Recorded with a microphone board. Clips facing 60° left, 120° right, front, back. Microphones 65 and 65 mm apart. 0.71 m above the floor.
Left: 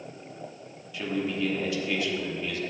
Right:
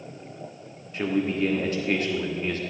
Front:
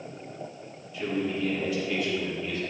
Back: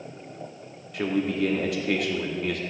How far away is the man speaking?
About 1.0 m.